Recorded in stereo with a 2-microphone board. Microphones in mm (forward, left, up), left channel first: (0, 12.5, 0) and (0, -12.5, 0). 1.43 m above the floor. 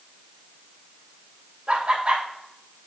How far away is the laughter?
About 1.3 m.